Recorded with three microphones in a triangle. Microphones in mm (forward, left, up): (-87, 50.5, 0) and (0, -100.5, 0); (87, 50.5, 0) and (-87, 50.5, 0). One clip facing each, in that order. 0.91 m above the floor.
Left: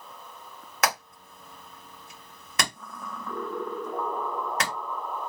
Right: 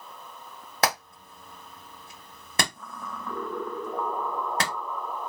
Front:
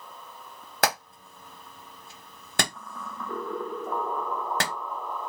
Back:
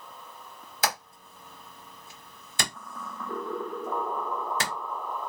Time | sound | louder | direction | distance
0.8 | hammering | right 2 dB, front 4 dB | 5° right | 1.9 m